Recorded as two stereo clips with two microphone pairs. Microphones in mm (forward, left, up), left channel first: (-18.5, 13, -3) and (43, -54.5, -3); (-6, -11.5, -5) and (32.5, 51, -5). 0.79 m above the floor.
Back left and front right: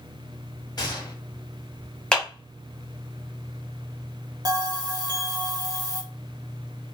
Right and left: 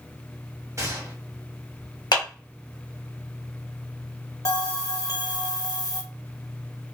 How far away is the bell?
About 0.7 m.